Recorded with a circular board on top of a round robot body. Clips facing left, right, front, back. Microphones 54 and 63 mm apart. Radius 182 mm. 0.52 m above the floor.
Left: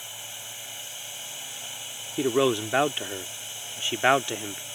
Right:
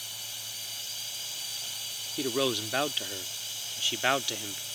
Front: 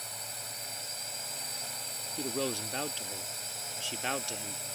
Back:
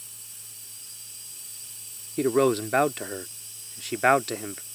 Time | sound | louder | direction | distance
0.0 | a drone | left 2 dB, front 11 dB | 25° left | ?
2.2 | a man speaking | left 7 dB, back 13 dB | 155° left | ?